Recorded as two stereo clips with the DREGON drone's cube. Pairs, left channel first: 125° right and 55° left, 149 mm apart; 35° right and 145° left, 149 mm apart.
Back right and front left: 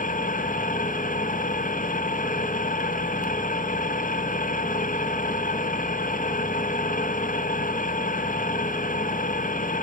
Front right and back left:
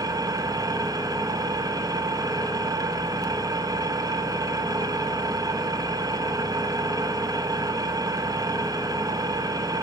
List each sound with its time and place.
0.0 s an engine running: 150° right, 0.7 m